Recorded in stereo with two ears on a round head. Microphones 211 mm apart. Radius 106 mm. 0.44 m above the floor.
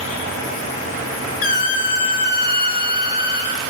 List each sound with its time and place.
1.4 s a squeak: 35° left (ahead or behind), 1.2 m